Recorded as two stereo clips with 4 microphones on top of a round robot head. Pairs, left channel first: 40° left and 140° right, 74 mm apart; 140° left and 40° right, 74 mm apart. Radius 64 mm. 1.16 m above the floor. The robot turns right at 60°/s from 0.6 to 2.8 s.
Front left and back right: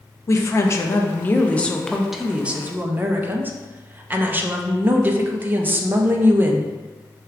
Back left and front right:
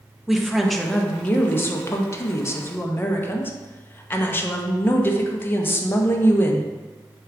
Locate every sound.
0.3 s a woman speaking: 45° left, 0.6 m; by 6.7 s 175° left, 0.6 m